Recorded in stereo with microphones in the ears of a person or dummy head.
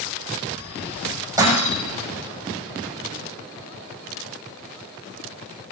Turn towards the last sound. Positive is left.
turn(degrees=-20)  # may be behind; listen again after turning